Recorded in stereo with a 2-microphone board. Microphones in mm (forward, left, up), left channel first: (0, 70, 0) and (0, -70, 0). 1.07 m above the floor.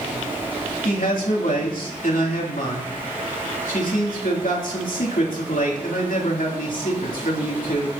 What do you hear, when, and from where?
0.8 s a man speaking: 75° left (ahead or behind), 3 m